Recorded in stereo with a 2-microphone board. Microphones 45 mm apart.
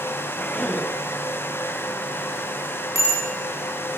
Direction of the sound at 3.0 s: 80° right.